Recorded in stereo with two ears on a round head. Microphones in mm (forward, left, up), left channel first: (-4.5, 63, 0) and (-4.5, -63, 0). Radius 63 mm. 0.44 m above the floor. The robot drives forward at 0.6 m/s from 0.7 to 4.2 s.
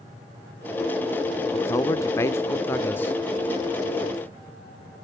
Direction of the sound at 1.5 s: 20° left (ahead or behind).